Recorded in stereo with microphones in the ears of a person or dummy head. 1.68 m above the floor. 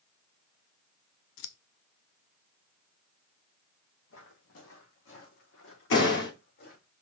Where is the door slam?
55° left (ahead or behind), 3 m.